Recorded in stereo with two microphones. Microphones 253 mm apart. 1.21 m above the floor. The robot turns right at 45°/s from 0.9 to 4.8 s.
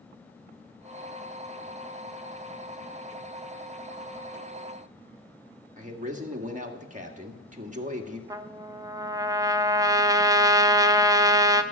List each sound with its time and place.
5.8 s a man speaking: 30° right (ahead or behind), 1.7 m
8.3 s a trumpet: 15° right (ahead or behind), 0.7 m